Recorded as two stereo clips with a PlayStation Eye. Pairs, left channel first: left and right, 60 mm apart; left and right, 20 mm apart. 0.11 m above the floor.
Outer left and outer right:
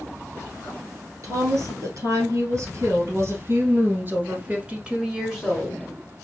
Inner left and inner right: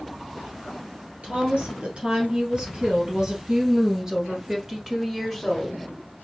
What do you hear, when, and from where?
1.2 s a woman speaking: 60° right (ahead or behind), 2.5 m; by 5.9 s 15° left (ahead or behind), 1.2 m